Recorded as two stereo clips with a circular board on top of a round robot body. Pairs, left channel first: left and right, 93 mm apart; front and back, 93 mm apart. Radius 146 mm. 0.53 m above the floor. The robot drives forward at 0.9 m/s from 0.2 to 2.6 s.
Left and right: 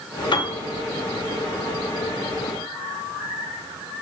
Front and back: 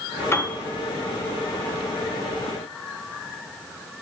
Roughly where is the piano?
Ahead left.